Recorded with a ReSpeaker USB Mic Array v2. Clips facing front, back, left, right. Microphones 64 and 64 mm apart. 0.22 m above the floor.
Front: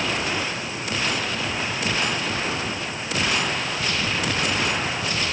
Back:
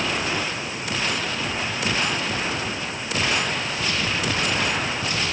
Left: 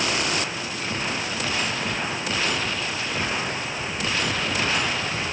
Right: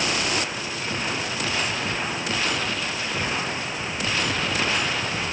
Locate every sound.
Only background noise.